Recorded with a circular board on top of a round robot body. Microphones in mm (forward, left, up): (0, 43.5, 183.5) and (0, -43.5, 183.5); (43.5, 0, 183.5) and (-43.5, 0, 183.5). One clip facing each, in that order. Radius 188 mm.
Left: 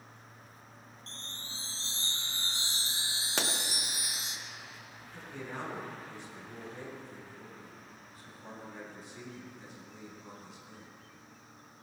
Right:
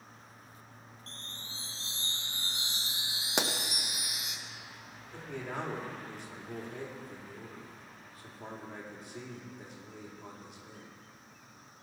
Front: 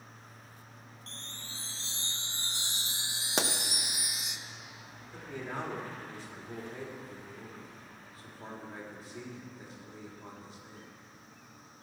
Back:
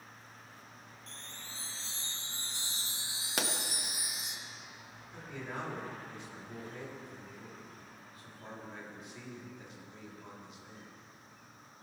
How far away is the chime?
About 0.6 m.